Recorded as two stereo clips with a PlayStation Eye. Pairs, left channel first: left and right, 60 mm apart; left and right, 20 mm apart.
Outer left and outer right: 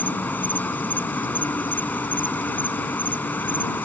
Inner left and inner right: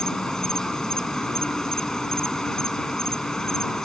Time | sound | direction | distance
0.0 | an insect | 30° left (ahead or behind) | ?